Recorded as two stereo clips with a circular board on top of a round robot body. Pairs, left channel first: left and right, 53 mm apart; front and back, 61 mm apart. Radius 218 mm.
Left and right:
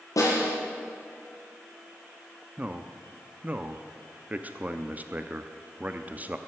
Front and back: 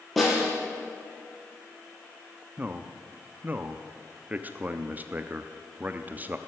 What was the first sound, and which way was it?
A snare drum, 85° left.